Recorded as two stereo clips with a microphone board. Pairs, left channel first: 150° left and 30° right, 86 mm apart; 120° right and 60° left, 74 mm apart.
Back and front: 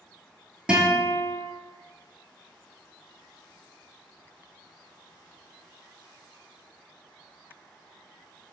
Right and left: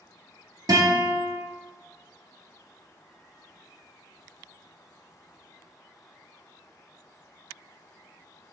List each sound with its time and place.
0.7 s a guitar: 45° left, 1.0 m